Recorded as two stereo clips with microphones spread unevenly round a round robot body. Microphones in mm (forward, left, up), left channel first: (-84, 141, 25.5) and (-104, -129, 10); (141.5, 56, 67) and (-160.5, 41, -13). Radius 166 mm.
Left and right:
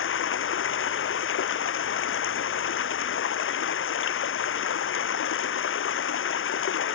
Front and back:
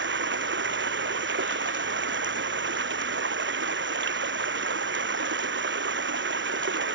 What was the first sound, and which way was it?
Running water, 130° left.